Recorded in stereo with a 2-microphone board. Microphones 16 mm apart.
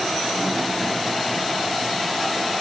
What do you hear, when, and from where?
Only background noise.